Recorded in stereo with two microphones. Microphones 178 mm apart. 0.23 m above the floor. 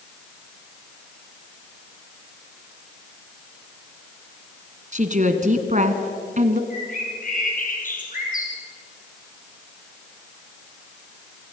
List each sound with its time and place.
4.9 s a woman speaking: 45° right (ahead or behind), 2.0 m
6.7 s a bird: 50° left (ahead or behind), 4 m